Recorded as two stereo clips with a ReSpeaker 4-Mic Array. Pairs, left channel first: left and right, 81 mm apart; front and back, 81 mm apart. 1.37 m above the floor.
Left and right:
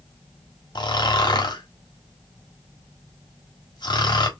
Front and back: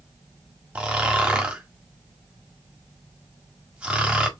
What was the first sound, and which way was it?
Snoring, 105° left.